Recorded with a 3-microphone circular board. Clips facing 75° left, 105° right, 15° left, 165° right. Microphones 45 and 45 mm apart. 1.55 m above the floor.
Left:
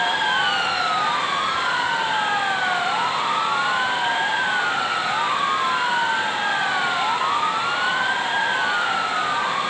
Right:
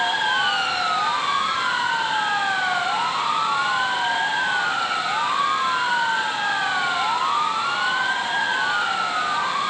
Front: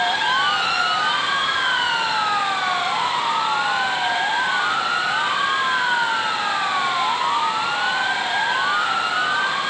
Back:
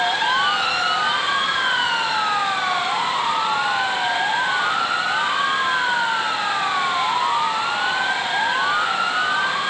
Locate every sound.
Only background noise.